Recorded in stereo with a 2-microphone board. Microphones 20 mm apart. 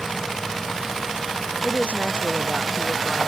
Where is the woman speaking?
85° left.